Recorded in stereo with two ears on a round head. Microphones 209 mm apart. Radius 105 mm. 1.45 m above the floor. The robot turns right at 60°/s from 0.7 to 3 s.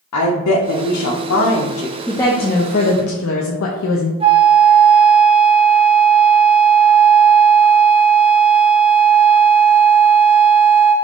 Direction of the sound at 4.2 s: 25° right (ahead or behind).